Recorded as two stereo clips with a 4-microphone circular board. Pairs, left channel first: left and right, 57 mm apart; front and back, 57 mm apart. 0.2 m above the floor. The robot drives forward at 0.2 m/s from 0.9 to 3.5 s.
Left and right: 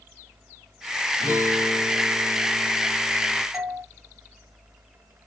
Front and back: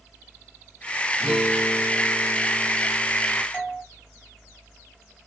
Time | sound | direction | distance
1.2 | a guitar | 80° left | 1.3 m
3.5 | a doorbell | 95° right | 1.5 m